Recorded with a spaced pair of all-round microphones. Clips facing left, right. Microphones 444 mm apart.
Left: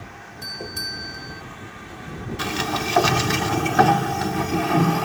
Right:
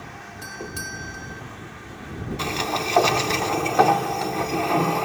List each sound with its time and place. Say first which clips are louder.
0.4 s a doorbell: even; 10° right (ahead or behind)
2.4 s a sliding door: left 2 dB; 30° left (ahead or behind)